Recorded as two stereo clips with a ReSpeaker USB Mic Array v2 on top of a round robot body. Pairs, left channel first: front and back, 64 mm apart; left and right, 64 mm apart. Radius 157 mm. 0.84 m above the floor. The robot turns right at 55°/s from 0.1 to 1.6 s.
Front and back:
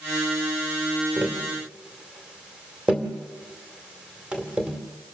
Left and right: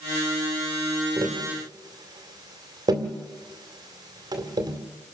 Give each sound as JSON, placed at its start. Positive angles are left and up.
{"t": 1.2, "sound": "tapping", "azimuth_deg": -125, "distance_m": 1.9}